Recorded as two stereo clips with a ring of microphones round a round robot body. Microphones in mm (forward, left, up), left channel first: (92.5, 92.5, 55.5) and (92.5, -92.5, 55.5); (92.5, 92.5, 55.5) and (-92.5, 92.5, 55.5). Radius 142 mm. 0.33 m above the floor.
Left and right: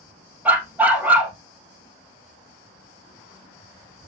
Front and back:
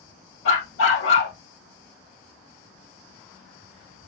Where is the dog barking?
10° right, 2.5 m.